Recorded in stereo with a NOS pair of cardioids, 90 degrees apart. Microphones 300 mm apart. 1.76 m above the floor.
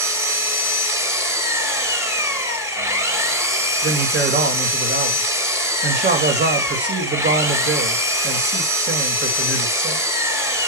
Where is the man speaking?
35° right, 3 m.